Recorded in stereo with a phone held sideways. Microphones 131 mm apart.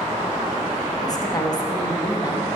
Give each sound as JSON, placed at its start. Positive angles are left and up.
{"t": 1.0, "sound": "a woman speaking", "side_deg": 30, "distance_m": 1.0}